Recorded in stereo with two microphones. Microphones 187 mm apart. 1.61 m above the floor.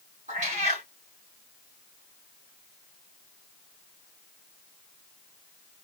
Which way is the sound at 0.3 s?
40° right (ahead or behind).